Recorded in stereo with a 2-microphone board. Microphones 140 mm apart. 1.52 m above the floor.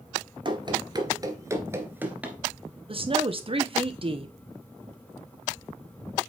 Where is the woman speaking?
40° right (ahead or behind), 1.0 m.